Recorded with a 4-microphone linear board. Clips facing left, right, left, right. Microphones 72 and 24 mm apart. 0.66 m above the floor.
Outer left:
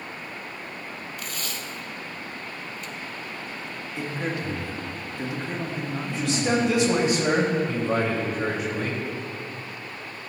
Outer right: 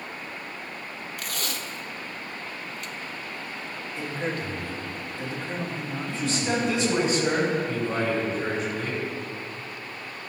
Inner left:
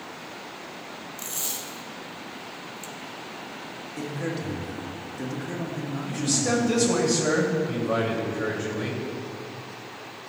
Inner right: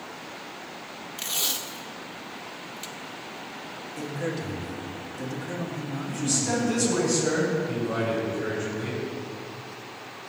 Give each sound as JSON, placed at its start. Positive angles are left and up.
{"t": 1.2, "sound": "tape being pulled", "side_deg": -80, "distance_m": 0.6}
{"t": 4.0, "sound": "a man speaking", "side_deg": 15, "distance_m": 1.7}
{"t": 6.0, "sound": "a man speaking", "side_deg": 75, "distance_m": 3.0}